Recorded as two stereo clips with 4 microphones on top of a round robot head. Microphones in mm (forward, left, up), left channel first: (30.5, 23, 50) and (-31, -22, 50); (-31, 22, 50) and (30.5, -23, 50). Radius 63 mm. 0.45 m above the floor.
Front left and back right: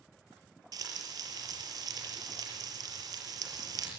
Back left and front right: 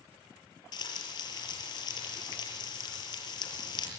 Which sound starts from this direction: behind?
Frying, at 0.7 s.